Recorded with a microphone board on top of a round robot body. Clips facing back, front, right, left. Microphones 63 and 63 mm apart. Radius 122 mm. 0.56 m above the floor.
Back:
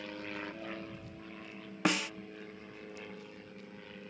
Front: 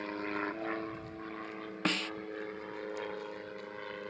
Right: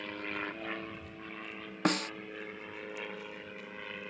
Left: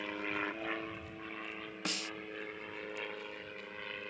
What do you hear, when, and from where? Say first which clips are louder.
0.0 s an aircraft: front 6 dB, left 1 dB; 10° left; by 4.1 s 5° right
1.9 s a snare drum: back 3 dB, right 11 dB; 100° right